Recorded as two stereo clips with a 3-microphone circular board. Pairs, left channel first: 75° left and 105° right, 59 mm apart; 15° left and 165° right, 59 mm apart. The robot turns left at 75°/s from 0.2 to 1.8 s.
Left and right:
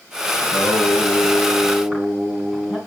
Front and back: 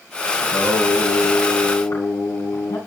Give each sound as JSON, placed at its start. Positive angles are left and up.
{"t": 0.4, "sound": "singing", "azimuth_deg": 80, "distance_m": 3.0}